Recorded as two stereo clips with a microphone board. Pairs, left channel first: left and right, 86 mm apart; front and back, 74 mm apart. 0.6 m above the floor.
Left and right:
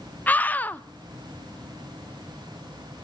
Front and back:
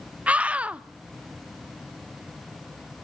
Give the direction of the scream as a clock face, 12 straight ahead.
8 o'clock.